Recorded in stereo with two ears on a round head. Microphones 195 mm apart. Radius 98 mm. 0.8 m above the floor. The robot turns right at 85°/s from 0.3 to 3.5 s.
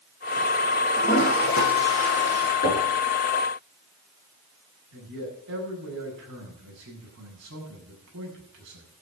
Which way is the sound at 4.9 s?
60° right (ahead or behind).